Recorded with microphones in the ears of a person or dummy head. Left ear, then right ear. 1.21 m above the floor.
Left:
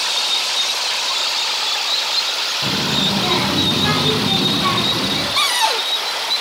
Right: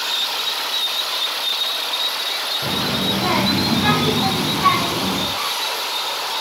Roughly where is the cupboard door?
Left.